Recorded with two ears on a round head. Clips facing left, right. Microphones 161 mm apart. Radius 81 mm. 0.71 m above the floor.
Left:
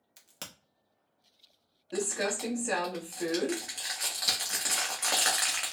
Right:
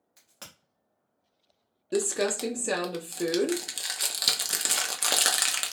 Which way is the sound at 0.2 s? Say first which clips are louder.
Left 2 dB; 35° left (ahead or behind).